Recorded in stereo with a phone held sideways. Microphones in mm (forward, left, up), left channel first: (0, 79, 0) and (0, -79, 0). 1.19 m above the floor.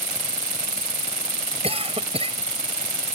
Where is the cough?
40° right (ahead or behind).